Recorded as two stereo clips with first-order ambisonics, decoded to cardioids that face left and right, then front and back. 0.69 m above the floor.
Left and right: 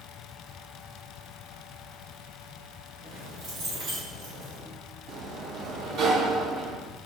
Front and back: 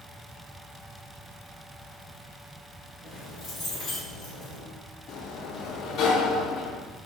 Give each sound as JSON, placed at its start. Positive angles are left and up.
{"t": 3.0, "sound": "keys jangling", "azimuth_deg": -65, "distance_m": 1.8}
{"t": 5.1, "sound": "a sliding door", "azimuth_deg": -45, "distance_m": 0.5}